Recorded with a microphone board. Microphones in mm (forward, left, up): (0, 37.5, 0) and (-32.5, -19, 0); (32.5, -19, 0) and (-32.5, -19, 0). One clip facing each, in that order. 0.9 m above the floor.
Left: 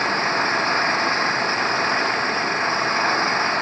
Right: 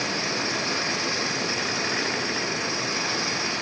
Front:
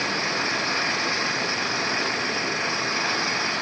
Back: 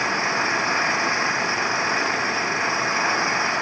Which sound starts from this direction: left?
An engine running, at 0.0 s.